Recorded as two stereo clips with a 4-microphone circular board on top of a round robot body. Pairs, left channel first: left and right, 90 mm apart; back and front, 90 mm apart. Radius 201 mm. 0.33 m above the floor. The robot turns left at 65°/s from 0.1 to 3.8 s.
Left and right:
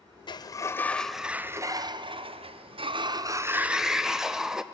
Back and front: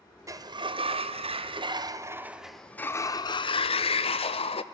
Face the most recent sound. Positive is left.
turn(degrees=-175)